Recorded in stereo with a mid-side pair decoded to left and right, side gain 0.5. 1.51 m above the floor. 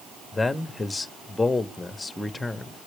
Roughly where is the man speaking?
Ahead.